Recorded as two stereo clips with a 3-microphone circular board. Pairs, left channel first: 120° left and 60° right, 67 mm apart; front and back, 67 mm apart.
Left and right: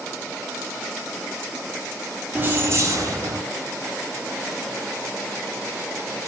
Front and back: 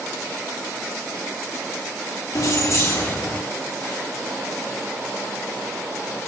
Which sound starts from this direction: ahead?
Keys jangling, at 2.4 s.